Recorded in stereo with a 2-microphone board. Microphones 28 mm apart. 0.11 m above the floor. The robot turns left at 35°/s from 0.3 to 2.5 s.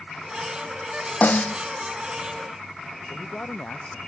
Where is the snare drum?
65° left (ahead or behind); by 1.6 s 55° left (ahead or behind).